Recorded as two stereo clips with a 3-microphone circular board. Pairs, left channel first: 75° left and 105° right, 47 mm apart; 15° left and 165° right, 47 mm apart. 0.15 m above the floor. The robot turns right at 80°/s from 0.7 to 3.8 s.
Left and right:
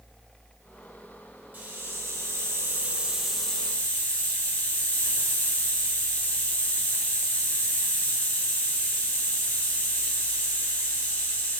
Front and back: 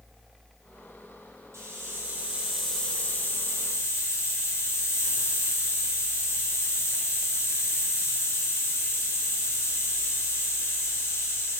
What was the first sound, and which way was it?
A hiss, 155° right.